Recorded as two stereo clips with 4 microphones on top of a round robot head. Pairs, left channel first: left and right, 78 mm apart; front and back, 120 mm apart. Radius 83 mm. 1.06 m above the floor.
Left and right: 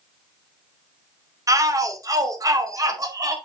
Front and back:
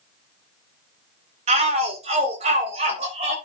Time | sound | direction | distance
1.5 | a shout | 135° right | 2.5 m